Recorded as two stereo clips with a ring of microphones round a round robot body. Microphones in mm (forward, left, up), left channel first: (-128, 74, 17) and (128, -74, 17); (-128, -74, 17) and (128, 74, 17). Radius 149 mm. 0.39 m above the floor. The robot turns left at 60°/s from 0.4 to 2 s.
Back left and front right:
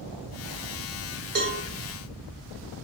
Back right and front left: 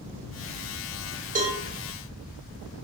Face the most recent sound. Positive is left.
turn(degrees=-50)